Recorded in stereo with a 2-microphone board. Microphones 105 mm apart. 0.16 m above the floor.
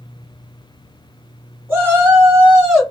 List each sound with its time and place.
1.7 s a shout: 20° right (ahead or behind), 1.7 m; by 2.8 s 10° right (ahead or behind), 1.8 m